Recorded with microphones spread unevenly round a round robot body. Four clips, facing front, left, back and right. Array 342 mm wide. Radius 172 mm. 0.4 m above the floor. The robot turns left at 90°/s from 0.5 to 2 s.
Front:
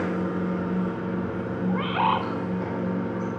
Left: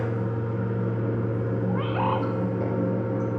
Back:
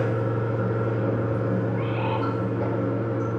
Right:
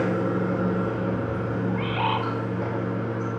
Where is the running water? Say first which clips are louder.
Right 5 dB, back 1 dB; 105° right, 5.5 m; by 3.4 s 120° left, 5.5 m.